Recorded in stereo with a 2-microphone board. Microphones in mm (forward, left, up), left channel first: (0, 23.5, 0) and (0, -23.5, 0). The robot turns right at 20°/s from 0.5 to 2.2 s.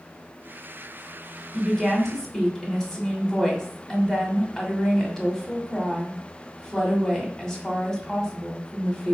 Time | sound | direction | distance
1.5 | a woman speaking | 10° left (ahead or behind) | 1.0 m